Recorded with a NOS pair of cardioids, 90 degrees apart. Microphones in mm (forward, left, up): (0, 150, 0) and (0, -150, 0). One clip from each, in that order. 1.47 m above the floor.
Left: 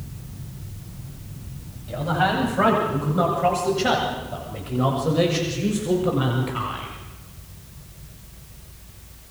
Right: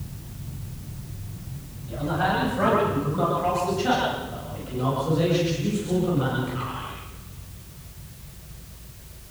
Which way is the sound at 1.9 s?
50° left.